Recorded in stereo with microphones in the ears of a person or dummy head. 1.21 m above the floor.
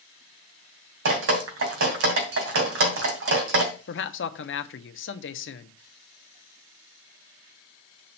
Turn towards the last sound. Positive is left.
turn(degrees=60)  # may be behind; listen again after turning